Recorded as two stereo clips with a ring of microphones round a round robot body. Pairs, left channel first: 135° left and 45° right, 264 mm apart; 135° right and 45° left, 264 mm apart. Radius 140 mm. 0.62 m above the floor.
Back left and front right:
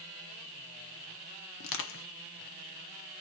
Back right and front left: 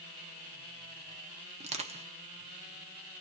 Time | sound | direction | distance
1.6 | crushing | 110° left | 0.7 m